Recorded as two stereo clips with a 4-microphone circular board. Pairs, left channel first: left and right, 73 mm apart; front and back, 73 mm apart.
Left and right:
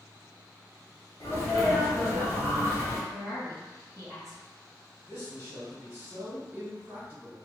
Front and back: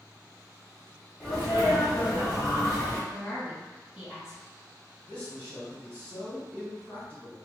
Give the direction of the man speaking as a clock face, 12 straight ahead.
2 o'clock.